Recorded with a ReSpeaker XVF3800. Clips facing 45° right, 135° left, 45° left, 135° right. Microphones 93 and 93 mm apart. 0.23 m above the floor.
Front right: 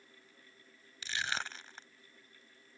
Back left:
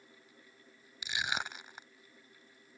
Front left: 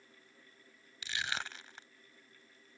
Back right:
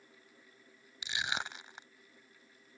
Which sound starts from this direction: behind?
Crushing, at 1.0 s.